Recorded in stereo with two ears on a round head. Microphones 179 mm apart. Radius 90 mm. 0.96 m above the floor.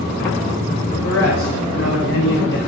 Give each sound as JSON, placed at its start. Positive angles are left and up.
{"t": 0.9, "sound": "a man speaking", "side_deg": 80, "distance_m": 3.5}